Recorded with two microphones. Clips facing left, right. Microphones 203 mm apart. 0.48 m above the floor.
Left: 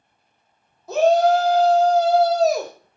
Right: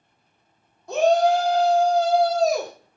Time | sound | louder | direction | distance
0.9 | a shout | left 2 dB | 5° left (ahead or behind) | 0.7 m